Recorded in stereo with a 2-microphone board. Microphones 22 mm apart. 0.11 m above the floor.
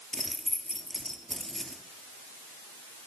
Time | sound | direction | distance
0.1 | keys jangling | 10° left (ahead or behind) | 1.8 m